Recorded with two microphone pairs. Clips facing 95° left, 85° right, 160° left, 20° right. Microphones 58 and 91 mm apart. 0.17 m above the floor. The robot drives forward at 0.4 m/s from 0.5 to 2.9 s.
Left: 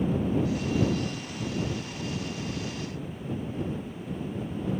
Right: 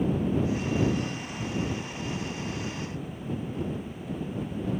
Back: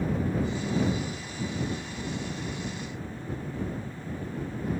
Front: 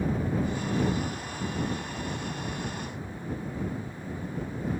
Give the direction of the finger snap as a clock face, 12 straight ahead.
No finger snap in this recording.